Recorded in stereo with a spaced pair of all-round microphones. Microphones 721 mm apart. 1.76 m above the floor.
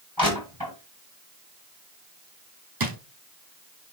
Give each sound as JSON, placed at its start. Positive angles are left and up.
{"t": 0.2, "sound": "crushing", "side_deg": -30, "distance_m": 6.0}
{"t": 2.8, "sound": "a drawer", "side_deg": -30, "distance_m": 1.1}